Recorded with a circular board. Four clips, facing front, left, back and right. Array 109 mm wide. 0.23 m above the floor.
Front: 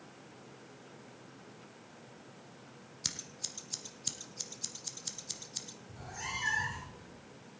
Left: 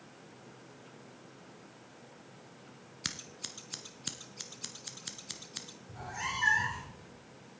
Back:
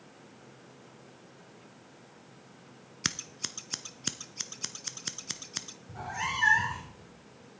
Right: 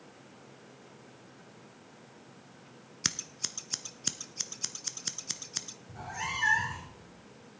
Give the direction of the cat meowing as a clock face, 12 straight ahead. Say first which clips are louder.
Right 1 dB, back 9 dB; 6 o'clock.